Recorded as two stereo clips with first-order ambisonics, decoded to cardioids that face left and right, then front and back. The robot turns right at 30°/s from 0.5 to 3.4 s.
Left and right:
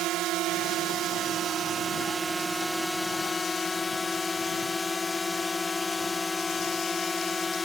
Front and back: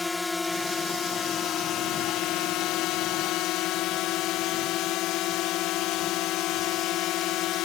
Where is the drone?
75° right; by 7.7 s 10° left.